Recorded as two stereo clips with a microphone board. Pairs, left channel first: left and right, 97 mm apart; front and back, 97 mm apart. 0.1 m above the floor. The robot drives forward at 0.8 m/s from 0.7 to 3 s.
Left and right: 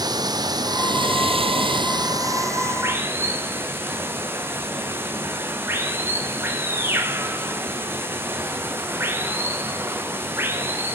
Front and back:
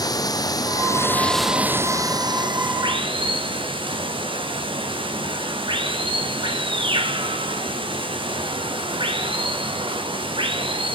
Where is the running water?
45° right, 0.8 m; by 10.9 s 155° right, 1.4 m.